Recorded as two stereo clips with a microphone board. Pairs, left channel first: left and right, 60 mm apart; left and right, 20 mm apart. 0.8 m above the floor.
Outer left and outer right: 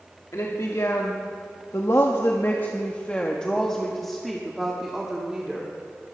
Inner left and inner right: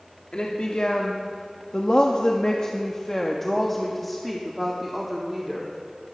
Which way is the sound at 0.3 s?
60° left (ahead or behind).